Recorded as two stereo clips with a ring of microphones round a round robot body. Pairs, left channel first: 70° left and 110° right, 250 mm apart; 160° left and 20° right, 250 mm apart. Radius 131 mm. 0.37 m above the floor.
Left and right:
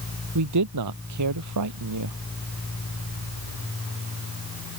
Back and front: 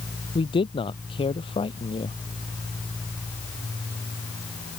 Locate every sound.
0.3 s a man speaking: 130° right